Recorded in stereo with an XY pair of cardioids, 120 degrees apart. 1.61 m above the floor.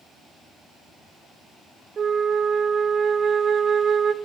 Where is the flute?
40° right, 0.9 m.